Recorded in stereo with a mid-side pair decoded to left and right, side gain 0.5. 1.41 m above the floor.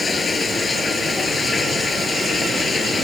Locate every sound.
0.0 s running water: 30° left